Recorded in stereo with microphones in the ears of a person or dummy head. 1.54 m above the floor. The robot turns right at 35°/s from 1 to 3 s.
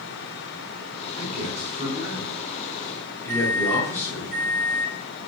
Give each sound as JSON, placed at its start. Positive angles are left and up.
{"t": 1.2, "sound": "a man speaking", "side_deg": -60, "distance_m": 6.0}
{"t": 3.3, "sound": "a microwave", "side_deg": 80, "distance_m": 3.5}